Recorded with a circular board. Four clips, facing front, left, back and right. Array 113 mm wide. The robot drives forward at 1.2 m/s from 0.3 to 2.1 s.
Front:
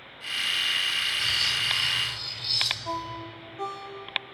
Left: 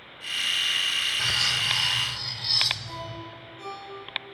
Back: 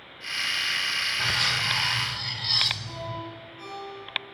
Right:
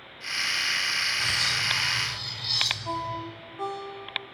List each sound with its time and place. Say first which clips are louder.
1.2 s cutlery clinking: even, back 4 dB; 160° left, 0.7 m; by 3.2 s 175° left, 1.6 m
2.9 s a ringtone: right 6 dB, front 2 dB; 40° right, 9 m